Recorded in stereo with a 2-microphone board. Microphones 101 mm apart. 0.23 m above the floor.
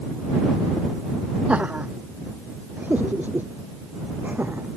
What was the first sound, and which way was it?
Laughter, 15° right (ahead or behind).